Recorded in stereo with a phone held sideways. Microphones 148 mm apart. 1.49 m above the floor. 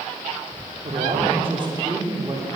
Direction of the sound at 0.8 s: 50° right (ahead or behind).